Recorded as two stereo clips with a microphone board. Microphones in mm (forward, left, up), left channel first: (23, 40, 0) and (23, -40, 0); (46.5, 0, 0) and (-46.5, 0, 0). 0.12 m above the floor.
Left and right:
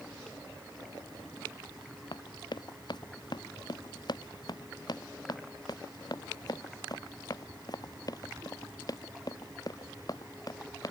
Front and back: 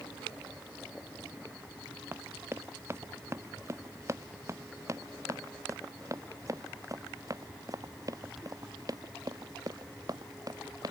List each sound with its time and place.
2.1 s running footsteps: 115° left; by 10.9 s 130° left